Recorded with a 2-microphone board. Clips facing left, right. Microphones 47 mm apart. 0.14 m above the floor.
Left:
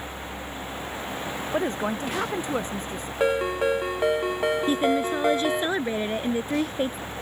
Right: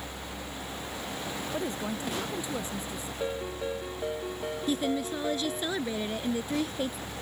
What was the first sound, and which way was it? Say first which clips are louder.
A woman speaking: left 9 dB; 50° left (ahead or behind).